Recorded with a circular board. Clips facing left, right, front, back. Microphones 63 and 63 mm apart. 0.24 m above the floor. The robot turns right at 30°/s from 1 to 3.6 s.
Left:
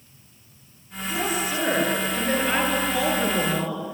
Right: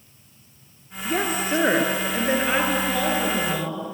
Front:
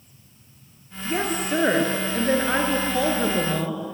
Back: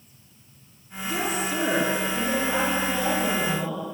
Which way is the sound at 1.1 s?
55° right.